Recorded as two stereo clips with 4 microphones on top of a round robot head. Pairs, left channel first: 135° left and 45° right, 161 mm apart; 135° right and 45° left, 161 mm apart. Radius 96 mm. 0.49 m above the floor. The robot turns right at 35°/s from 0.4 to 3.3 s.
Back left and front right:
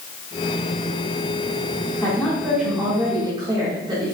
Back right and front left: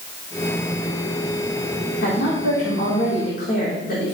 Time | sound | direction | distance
2.0 | a woman speaking | 150° right | 4.5 m